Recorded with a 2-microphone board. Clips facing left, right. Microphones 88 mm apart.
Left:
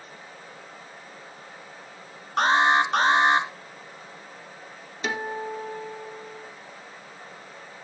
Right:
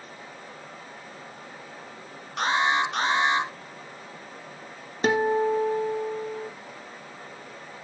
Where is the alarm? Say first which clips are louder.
Left 4 dB; 40° left (ahead or behind), 2.5 m.